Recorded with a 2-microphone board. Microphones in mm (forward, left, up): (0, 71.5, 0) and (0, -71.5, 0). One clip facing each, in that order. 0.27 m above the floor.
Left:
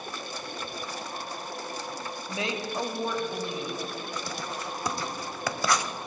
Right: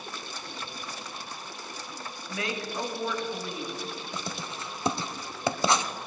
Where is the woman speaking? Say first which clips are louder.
Left 1 dB; 25° left (ahead or behind), 1.4 m.